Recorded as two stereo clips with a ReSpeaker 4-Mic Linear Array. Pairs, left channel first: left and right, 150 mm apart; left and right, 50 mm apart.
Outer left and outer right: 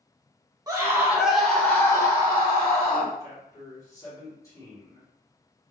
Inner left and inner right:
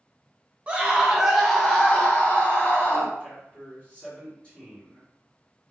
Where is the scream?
25° right (ahead or behind), 1.2 m; by 3.1 s 45° left (ahead or behind), 1.5 m.